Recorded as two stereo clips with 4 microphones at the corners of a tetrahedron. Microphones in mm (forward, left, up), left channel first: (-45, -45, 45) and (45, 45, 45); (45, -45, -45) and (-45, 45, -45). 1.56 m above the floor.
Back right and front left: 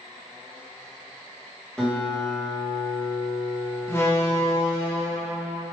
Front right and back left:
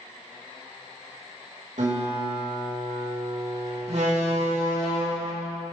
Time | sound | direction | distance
1.8 | a guitar | 145° left | 2.5 m
3.9 | a door slam | 155° left | 2.5 m